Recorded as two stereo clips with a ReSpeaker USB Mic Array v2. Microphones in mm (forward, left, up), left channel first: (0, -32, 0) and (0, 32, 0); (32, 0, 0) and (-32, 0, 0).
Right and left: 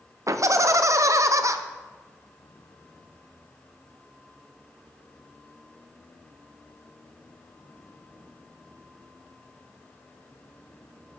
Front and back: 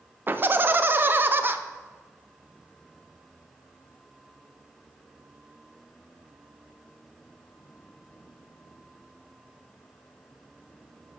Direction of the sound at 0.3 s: 125° left.